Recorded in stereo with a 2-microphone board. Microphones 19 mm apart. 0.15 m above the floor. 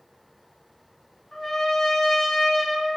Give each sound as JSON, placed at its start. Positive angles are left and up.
{"t": 1.3, "sound": "a trumpet", "side_deg": 20, "distance_m": 2.0}